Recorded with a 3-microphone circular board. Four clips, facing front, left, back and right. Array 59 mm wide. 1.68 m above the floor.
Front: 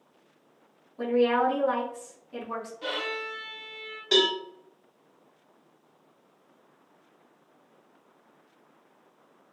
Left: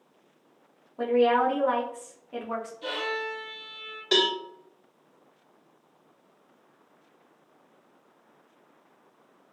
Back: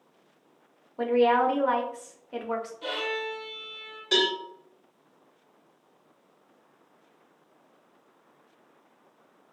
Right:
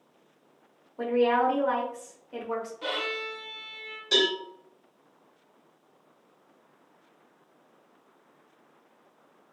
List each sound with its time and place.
1.0 s a woman speaking: 170° left, 0.7 m
2.8 s a violin: 65° right, 1.0 m
4.1 s a cowbell: 70° left, 1.1 m